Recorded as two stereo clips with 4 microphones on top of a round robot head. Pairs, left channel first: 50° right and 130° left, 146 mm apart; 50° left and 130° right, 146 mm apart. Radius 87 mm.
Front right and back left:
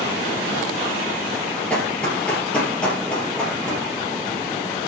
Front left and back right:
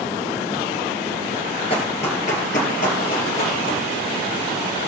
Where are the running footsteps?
30° left, 1.9 m; by 3.8 s 35° left, 3 m.